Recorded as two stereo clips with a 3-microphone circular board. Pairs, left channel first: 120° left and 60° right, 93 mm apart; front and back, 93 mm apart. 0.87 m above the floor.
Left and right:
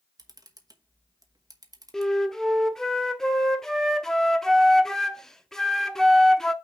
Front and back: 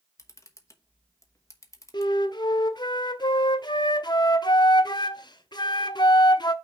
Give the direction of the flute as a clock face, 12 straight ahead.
11 o'clock.